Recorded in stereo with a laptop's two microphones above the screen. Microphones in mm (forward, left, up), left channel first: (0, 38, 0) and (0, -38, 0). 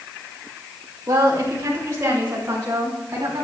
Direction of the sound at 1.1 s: 40° right (ahead or behind).